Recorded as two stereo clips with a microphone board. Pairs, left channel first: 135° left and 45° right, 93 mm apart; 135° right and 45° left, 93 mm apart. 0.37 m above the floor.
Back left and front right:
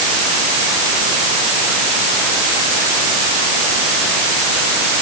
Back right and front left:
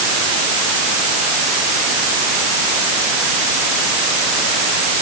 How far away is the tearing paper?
I don't hear tearing paper.